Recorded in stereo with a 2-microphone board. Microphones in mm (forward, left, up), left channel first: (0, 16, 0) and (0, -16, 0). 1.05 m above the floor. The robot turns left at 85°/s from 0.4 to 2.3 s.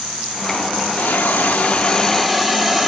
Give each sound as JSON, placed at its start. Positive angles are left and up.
{"t": 1.0, "sound": "a hiss", "azimuth_deg": 110, "distance_m": 1.2}